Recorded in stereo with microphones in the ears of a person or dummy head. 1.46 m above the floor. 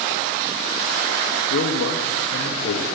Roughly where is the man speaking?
Left.